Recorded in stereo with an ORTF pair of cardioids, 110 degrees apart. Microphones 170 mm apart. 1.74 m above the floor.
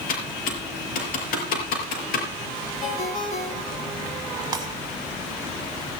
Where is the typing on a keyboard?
65° left, 5.5 m.